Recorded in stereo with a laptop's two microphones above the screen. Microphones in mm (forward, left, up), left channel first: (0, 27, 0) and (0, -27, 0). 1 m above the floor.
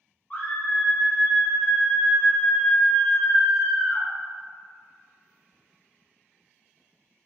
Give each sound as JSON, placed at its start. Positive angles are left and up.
{"t": 0.3, "sound": "a scream", "side_deg": 35, "distance_m": 1.5}